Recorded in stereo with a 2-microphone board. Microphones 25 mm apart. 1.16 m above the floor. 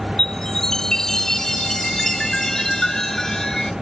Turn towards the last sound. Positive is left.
turn(degrees=25)  # may be behind; listen again after turning